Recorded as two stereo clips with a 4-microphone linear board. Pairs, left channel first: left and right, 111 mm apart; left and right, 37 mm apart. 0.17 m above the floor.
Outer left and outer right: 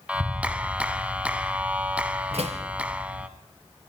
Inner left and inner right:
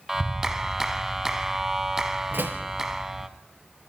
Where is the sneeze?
I don't hear a sneeze.